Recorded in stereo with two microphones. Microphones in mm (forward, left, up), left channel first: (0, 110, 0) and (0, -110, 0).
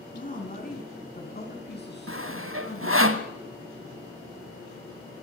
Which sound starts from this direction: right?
Sawing, at 2.1 s.